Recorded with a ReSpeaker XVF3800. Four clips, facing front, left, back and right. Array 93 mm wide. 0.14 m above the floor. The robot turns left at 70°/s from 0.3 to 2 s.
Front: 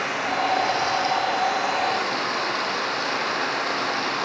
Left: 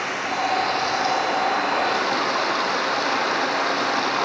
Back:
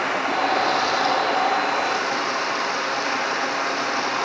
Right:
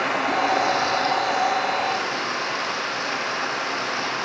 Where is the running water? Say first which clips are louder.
Right 3 dB, back 2 dB; 140° right, 1.5 m; by 4.2 s 100° left, 1.5 m.